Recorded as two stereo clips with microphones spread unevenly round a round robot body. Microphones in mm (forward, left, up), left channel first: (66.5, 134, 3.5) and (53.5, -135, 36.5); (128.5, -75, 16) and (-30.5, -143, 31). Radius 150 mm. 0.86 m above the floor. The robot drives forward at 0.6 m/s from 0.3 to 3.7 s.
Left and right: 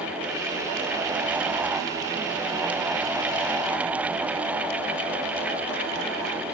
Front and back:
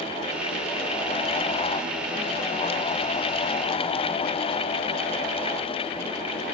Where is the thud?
I don't hear a thud.